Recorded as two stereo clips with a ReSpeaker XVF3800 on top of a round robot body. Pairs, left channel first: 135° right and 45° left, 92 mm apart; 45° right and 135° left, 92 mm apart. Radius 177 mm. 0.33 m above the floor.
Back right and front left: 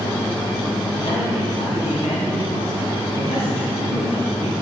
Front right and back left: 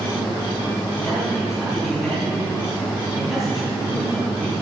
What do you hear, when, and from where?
1.0 s a man speaking: 135° right, 4 m